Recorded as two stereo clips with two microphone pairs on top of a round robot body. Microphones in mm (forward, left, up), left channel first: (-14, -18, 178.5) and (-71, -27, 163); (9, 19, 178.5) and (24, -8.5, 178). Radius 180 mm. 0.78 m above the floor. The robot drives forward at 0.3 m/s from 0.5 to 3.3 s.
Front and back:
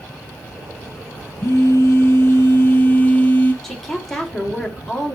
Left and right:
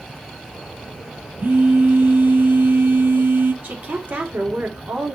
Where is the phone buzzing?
35° right, 1.2 m; by 3.5 s 60° right, 0.8 m.